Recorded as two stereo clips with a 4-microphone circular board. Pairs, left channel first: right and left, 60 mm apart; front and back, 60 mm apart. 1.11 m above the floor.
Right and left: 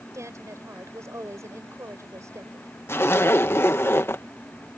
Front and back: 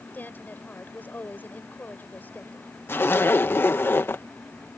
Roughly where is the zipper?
Ahead right.